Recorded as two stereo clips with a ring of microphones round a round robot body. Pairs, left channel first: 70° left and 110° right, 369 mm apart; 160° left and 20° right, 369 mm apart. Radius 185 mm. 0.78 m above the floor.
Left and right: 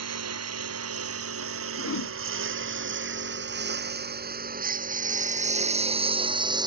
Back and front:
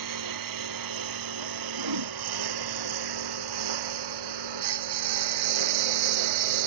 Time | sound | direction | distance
0.0 | a lawn mower | 60° right | ?
1.8 | a whoosh | 10° left | ?